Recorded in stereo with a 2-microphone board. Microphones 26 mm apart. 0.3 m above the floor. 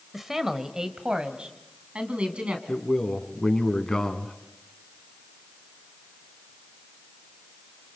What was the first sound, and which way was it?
A man speaking, 10° right (ahead or behind).